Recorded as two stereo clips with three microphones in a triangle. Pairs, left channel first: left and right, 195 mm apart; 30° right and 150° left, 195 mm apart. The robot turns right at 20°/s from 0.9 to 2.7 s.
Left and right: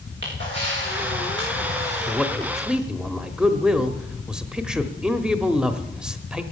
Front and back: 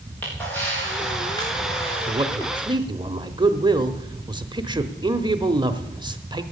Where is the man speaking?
175° left, 0.9 m; by 6.4 s 170° right, 0.9 m.